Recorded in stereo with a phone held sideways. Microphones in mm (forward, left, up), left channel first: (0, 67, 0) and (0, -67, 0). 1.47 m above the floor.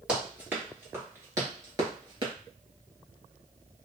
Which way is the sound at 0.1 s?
10° right (ahead or behind).